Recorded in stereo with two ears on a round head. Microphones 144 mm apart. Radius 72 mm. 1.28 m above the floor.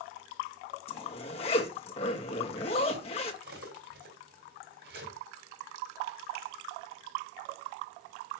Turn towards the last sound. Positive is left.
turn(degrees=-75)  # may be behind; listen again after turning